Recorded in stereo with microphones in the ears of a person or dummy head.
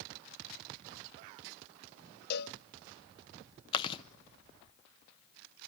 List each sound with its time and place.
2.3 s a cowbell: 65° left (ahead or behind), 0.7 m
3.7 s chewing: 30° left (ahead or behind), 1.0 m